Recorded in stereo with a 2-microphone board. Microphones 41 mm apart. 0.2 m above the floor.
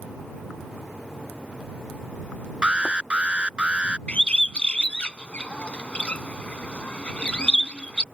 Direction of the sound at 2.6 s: 25° right (ahead or behind).